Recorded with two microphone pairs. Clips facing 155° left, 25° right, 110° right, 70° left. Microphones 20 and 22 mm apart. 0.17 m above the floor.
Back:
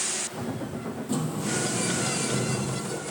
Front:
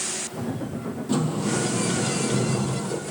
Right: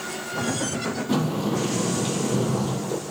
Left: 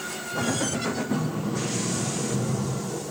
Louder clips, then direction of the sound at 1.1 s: Front 5 dB, right 4 dB; 90° right.